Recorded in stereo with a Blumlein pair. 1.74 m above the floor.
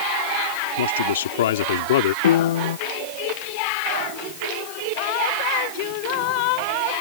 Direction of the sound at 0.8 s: 65° left.